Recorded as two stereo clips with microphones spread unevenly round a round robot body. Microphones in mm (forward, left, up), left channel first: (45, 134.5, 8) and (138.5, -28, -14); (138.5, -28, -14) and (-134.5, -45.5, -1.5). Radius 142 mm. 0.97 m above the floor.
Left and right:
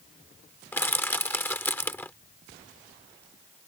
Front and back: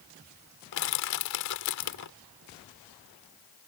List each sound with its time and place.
0.7 s crushing: 40° left